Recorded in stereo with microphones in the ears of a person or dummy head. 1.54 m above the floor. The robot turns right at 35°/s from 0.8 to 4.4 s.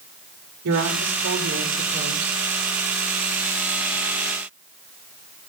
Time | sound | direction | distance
0.7 | a woman speaking | 85° right | 5 m